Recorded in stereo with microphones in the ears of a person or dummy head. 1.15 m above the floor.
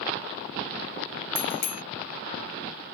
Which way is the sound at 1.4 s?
45° left (ahead or behind).